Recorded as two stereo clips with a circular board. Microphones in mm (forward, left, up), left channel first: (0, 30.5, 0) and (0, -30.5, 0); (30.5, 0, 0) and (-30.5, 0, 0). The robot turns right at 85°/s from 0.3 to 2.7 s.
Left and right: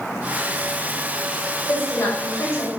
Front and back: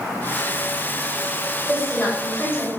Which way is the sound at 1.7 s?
40° left.